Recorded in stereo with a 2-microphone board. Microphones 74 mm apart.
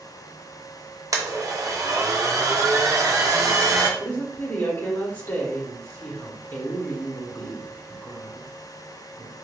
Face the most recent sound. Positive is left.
turn(degrees=25)  # may be behind; listen again after turning